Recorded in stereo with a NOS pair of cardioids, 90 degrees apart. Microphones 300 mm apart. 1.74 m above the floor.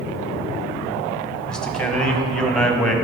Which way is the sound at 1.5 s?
Straight ahead.